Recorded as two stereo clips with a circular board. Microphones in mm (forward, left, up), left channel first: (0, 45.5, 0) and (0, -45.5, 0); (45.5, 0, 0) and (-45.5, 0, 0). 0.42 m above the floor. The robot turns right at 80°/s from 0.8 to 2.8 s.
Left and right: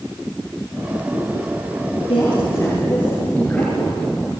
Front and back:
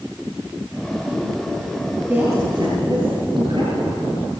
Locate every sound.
2.1 s a woman speaking: 105° left, 9 m; by 4.0 s 165° left, 9 m